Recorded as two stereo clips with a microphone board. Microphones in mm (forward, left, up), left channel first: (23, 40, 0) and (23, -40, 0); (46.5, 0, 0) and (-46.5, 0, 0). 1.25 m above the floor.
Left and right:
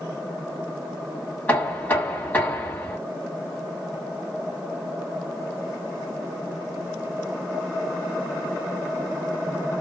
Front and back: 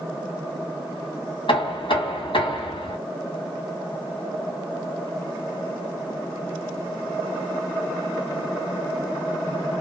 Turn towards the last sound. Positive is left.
turn(degrees=20)